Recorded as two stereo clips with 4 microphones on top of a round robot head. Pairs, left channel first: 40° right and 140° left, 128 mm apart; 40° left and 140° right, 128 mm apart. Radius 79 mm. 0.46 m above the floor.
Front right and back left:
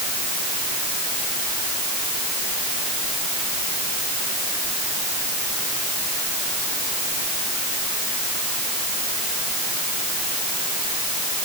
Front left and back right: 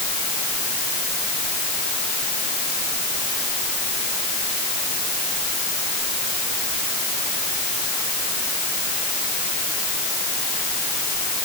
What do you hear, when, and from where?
Only background noise.